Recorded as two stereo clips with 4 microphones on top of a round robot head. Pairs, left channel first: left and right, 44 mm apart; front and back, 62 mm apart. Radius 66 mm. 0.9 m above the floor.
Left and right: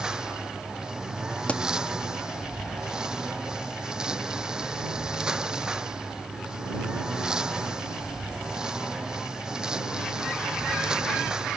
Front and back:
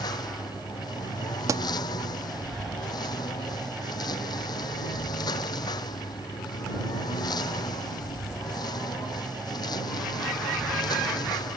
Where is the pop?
155° left.